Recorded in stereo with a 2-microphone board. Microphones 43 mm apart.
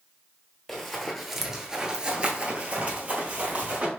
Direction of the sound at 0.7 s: 10° left (ahead or behind).